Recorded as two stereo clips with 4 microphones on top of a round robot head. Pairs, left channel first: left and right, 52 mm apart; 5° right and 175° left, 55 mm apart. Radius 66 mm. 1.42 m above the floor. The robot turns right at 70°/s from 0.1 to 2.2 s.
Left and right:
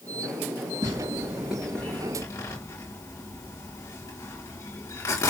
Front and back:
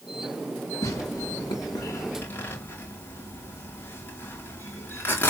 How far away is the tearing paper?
About 4 m.